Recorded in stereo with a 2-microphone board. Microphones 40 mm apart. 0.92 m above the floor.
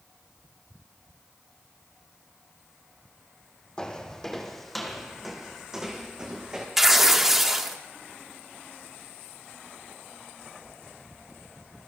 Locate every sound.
3.8 s footsteps: 15° left (ahead or behind), 2.0 m; by 6.7 s 20° right (ahead or behind), 3 m
6.8 s tearing paper: 10° right (ahead or behind), 1.4 m